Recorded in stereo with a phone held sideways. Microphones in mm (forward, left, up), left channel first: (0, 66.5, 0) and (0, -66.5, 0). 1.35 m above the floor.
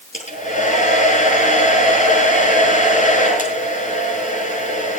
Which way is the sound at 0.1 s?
65° left (ahead or behind).